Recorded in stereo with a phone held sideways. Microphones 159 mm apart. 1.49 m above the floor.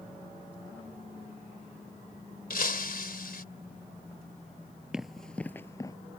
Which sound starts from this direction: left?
Breaking glass, at 2.5 s.